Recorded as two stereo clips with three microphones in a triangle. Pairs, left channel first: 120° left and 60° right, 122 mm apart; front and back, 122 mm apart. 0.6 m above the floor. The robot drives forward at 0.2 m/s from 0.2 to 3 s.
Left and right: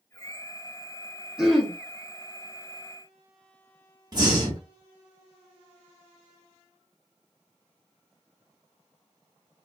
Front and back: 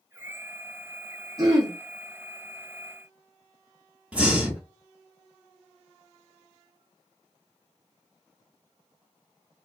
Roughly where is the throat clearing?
Behind right.